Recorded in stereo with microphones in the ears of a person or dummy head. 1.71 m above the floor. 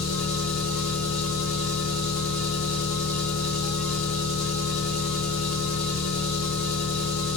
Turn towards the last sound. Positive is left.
turn(degrees=70)  # may be behind; listen again after turning